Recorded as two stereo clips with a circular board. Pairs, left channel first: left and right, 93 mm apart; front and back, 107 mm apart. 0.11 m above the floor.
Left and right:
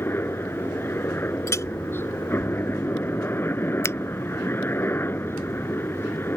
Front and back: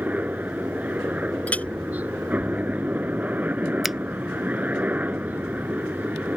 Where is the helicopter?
120° left.